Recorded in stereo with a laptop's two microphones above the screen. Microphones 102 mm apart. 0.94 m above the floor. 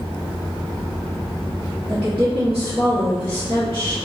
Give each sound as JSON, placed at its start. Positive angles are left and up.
{"t": 1.9, "sound": "a woman speaking", "side_deg": -55, "distance_m": 1.0}